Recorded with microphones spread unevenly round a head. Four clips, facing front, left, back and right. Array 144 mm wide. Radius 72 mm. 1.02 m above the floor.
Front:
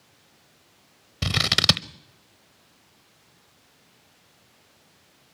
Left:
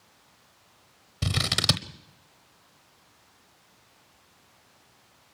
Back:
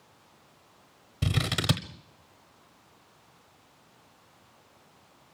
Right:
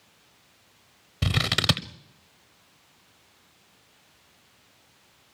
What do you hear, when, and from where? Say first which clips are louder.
1.2 s scissors: right 3 dB, front 3 dB; 30° right, 0.9 m